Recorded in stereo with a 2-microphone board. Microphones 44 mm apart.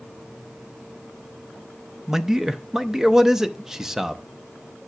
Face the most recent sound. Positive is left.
turn(degrees=-10)  # may be behind; listen again after turning